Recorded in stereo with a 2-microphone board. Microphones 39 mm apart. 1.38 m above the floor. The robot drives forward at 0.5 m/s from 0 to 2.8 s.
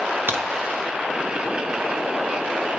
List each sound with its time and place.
0.3 s a crack: 65° right (ahead or behind), 1.4 m